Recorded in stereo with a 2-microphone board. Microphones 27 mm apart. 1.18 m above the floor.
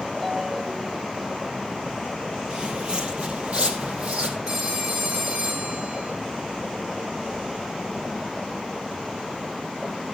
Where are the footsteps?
35° right (ahead or behind), 1.5 m; by 4.4 s 50° right (ahead or behind), 2.5 m.